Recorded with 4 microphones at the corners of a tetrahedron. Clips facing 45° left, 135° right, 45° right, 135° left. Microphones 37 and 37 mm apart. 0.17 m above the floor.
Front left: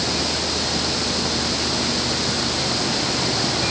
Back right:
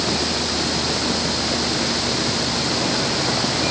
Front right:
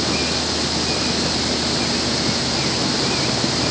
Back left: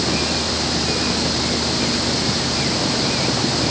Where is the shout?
I don't hear a shout.